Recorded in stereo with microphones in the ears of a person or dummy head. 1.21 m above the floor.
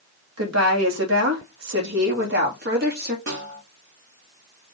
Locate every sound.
0.4 s a woman speaking: 75° right (ahead or behind), 2.5 m; by 3.2 s 45° right (ahead or behind), 2.5 m
3.3 s a snare drum: 55° right (ahead or behind), 3 m